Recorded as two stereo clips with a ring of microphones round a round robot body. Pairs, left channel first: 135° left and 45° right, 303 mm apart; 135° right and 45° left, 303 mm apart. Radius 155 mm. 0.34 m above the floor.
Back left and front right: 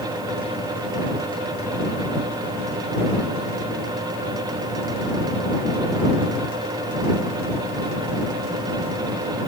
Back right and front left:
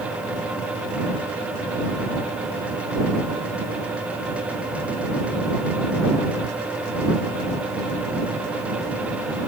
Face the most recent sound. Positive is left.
No sound to turn to.